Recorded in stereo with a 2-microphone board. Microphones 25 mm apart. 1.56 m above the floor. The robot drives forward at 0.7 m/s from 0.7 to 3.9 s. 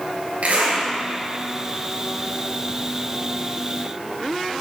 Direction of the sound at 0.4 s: 75° right (ahead or behind).